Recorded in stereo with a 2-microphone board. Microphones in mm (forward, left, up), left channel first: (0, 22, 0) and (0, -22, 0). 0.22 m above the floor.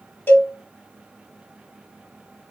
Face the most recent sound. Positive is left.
turn(degrees=40)  # may be behind; listen again after turning